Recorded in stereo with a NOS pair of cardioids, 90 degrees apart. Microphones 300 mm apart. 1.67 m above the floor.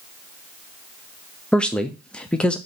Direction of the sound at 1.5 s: 5° left.